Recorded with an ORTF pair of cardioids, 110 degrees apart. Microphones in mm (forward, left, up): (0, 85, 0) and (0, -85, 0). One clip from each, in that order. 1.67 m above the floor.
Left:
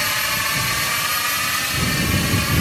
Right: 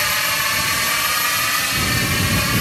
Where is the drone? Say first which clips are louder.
Right 2 dB; 15° right; by 2.6 s 20° right.